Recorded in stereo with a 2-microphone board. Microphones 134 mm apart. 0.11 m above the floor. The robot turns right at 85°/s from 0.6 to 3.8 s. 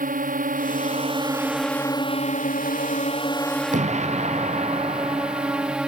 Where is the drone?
85° right; by 5.9 s 175° right.